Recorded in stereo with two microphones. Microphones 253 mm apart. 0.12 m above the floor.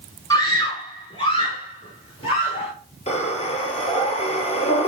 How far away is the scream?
About 1.2 m.